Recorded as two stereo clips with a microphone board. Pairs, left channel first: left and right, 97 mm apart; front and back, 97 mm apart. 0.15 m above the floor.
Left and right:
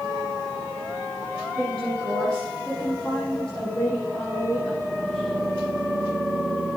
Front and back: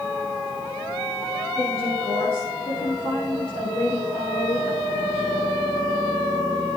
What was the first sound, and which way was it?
A woman speaking, 10° left.